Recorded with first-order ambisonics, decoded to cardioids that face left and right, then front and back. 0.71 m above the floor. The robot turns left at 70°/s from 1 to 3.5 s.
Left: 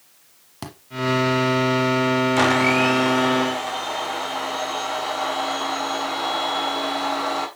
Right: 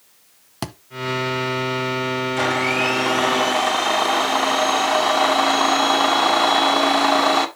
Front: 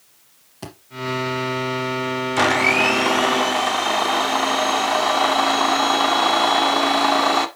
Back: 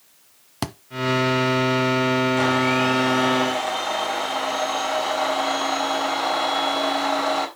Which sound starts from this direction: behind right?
A thud, at 0.6 s.